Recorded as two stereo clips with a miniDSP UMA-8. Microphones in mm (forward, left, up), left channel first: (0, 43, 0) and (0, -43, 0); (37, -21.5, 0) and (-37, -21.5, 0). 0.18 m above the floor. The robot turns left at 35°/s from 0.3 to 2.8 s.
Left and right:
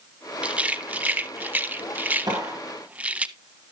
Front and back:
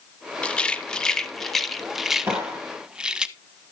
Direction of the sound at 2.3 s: 125° right.